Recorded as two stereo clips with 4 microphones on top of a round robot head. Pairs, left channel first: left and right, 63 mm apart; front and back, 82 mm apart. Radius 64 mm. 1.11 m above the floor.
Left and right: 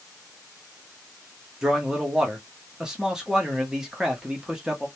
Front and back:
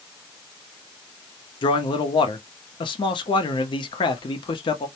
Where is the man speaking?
10° right, 0.7 m.